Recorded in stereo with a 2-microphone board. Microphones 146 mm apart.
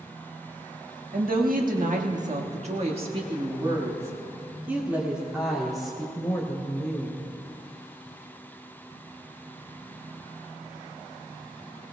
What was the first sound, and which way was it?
A woman speaking, 80° right.